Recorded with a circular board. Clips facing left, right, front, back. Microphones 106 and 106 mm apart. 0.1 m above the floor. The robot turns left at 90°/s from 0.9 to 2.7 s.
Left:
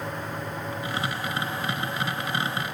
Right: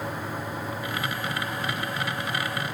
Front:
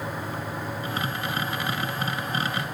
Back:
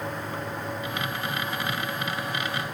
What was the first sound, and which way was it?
Only background noise.